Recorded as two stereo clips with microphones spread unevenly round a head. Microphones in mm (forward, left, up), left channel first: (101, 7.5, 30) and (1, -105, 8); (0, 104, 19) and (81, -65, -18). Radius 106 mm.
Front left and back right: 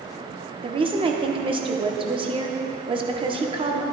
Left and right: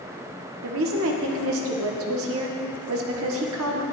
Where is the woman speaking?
75° right, 1.0 m.